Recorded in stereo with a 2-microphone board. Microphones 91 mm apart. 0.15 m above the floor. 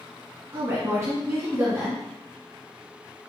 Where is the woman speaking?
30° right (ahead or behind), 1.6 m.